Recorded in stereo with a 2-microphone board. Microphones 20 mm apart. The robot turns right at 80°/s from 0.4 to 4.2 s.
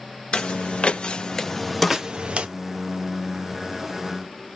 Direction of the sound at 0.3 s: 60° left (ahead or behind).